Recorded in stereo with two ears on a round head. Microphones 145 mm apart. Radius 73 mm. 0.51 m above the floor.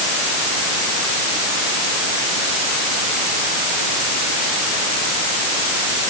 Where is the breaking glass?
I don't hear breaking glass.